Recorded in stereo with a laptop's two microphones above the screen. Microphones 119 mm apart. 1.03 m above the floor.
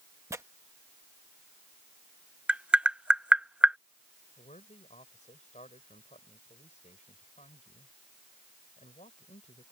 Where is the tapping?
10° right (ahead or behind).